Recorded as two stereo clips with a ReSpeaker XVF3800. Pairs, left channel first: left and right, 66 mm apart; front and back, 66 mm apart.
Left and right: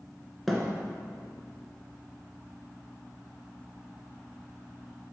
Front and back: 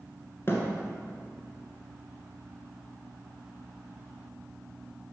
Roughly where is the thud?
Ahead.